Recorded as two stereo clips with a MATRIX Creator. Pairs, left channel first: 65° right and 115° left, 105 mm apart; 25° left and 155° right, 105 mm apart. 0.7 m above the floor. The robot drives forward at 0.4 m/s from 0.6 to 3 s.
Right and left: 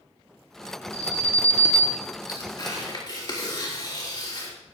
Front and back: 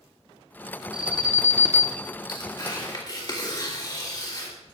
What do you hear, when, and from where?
0.9 s an alarm: 80° right, 1.5 m; by 2.0 s 95° right, 1.5 m
2.3 s tearing paper: 20° right, 3 m; by 4.5 s 25° right, 3 m